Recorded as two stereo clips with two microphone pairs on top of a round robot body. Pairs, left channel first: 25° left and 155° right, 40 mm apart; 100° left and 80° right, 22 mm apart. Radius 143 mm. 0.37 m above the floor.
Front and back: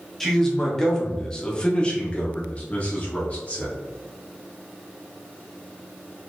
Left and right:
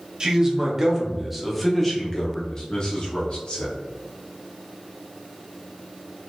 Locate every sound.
0.2 s a man speaking: 60° right, 1.5 m; by 3.8 s 75° left, 1.4 m